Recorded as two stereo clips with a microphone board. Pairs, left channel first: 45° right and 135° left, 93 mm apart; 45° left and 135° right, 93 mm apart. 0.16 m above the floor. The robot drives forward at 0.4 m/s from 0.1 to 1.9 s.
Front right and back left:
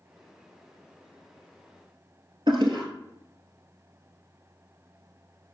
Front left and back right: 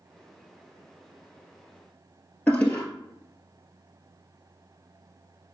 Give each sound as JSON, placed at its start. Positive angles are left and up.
{"t": 2.5, "sound": "a toilet flushing", "azimuth_deg": 120, "distance_m": 1.1}